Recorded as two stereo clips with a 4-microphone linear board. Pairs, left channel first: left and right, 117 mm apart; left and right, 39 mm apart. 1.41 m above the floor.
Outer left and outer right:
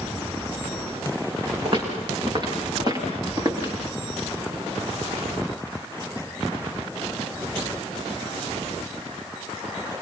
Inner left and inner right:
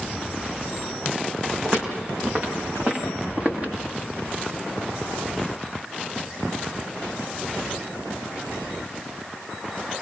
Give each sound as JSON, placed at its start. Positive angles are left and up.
{"t": 1.6, "sound": "footsteps", "side_deg": -45, "distance_m": 9.0}